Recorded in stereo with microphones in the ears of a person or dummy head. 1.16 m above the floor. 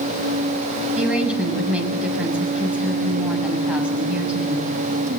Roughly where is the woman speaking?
Centre.